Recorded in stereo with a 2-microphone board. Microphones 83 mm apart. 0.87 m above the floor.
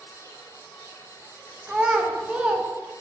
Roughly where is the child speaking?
Centre.